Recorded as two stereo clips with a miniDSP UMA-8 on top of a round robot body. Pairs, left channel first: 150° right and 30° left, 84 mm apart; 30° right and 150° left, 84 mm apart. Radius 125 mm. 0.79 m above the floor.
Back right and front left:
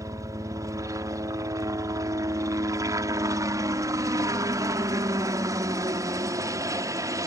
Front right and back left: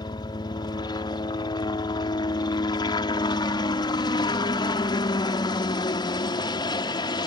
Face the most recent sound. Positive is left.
turn(degrees=-10)